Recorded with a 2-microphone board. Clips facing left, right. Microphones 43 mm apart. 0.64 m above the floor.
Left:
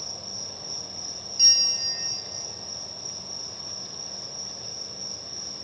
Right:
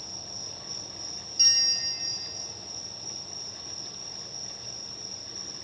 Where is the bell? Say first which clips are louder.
Left 2 dB; 5° left (ahead or behind), 1.0 m.